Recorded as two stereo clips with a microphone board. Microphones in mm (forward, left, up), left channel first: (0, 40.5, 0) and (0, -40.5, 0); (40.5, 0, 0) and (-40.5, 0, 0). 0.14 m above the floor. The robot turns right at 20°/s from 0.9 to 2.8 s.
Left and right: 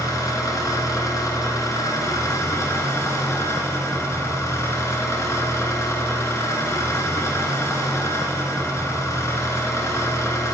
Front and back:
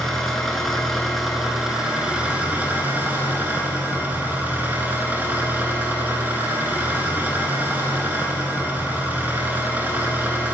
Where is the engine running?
85° left, 1.0 m; by 10.5 s 120° left, 1.0 m.